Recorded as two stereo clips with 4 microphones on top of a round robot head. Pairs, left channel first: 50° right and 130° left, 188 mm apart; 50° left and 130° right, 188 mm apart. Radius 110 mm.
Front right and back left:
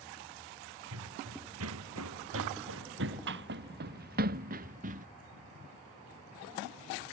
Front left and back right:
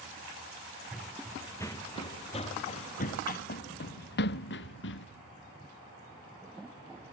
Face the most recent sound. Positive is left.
turn(degrees=80)